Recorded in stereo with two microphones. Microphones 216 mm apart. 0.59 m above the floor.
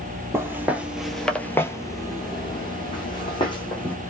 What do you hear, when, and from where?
0.3 s footsteps: 10° right (ahead or behind), 0.8 m; by 4.0 s 20° left (ahead or behind), 1.5 m